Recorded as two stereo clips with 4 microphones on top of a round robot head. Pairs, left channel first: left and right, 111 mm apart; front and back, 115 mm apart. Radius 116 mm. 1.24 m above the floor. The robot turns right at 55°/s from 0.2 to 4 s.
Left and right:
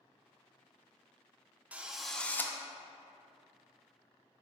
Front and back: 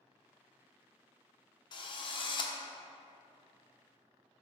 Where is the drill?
20° right, 0.6 m; by 2.5 s 25° left, 0.6 m.